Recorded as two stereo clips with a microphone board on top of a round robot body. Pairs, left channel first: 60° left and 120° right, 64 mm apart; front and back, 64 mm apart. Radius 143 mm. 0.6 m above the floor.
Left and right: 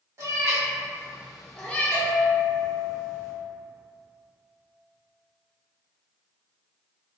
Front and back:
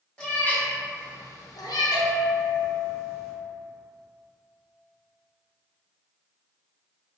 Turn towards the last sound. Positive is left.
turn(degrees=-25)